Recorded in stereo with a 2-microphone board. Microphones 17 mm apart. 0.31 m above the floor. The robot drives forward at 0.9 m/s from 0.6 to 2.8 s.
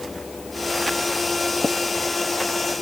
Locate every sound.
1.6 s tapping: 70° left (ahead or behind)